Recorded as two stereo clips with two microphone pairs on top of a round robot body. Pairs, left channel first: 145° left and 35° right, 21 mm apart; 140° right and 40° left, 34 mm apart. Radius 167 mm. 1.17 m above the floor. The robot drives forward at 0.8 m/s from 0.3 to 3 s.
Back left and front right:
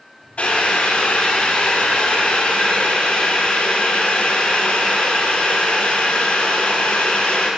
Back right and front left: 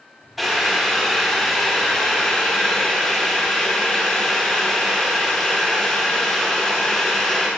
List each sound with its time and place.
0.4 s boiling: 125° left, 4.5 m; by 7.5 s 145° left, 6 m